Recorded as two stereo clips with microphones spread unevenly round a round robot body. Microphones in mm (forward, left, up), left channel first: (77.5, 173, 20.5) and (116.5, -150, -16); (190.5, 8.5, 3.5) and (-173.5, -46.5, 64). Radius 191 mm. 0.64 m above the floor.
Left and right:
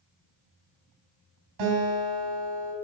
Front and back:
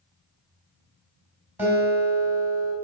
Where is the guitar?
85° right, 4 m.